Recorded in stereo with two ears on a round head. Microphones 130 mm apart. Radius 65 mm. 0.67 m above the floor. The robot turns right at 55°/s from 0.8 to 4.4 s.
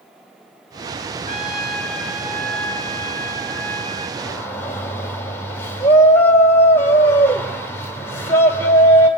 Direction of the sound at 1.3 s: 140° left.